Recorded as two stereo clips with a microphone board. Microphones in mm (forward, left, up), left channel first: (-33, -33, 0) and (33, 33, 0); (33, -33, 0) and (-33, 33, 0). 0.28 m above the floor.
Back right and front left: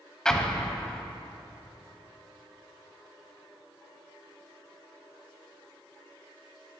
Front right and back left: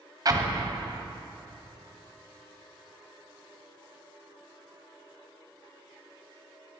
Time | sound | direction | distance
0.2 | an explosion | 145° left | 1.4 m